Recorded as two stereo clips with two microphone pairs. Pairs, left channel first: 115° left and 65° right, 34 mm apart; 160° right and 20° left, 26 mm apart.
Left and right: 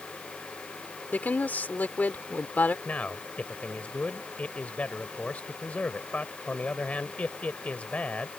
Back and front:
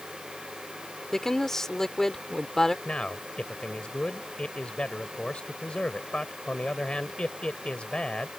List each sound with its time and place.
1.1 s a woman speaking: 130° left
2.9 s a man speaking: 160° left